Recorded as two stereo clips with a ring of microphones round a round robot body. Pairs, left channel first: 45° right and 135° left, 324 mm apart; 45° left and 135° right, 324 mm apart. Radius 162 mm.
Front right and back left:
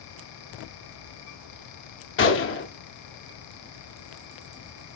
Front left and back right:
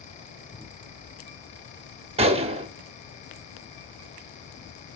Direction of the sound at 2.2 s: 70° right.